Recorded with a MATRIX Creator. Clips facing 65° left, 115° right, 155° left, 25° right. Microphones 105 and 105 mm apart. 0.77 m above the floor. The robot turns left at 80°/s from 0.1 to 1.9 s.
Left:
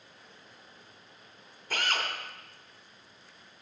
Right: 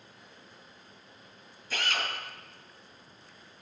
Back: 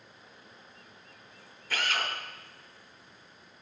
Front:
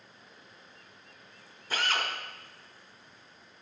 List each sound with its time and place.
1.7 s a drill: 45° left, 3 m; by 2.1 s 30° left, 3 m